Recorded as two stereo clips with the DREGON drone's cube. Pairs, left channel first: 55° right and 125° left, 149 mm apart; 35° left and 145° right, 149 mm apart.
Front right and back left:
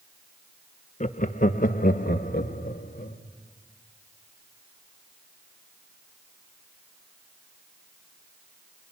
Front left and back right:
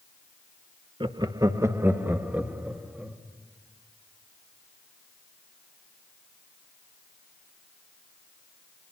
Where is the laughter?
90° right, 1.0 m; by 3.2 s 65° right, 2.5 m.